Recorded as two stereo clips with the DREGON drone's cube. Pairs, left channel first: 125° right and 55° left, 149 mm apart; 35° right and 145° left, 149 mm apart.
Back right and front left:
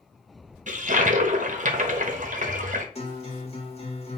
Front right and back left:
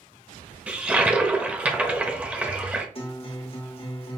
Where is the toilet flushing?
65° left, 0.7 m.